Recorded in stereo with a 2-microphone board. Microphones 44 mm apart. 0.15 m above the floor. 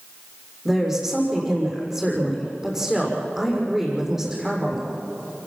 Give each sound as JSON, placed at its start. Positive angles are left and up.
{"t": 0.7, "sound": "a woman speaking", "side_deg": -10, "distance_m": 6.5}